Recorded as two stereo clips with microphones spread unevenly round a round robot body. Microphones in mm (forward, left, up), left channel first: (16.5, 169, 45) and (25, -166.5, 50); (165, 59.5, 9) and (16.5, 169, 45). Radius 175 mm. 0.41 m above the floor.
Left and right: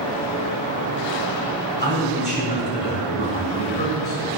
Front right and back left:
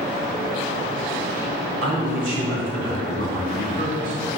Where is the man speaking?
150° left, 2 m; by 4.3 s 145° left, 3.5 m.